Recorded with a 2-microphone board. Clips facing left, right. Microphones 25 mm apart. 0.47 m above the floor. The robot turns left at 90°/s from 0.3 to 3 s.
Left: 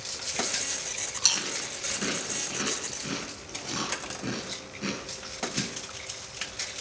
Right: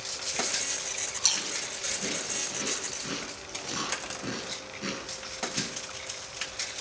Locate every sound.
1.2 s chewing: 15° left (ahead or behind), 6 m; by 5.7 s centre (ahead or behind), 6 m